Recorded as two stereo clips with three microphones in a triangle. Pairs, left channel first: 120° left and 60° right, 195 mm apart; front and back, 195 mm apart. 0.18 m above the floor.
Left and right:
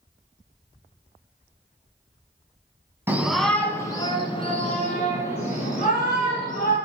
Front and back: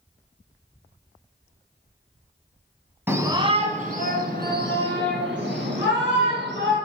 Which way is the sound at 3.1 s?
120° right.